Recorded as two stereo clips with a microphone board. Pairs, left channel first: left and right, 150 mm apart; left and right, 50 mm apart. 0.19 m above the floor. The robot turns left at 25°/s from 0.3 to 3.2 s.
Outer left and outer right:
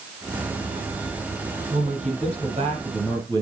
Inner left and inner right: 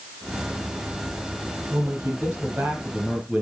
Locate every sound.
1.7 s a man speaking: 115° right, 5.5 m; by 3.4 s 155° right, 5.5 m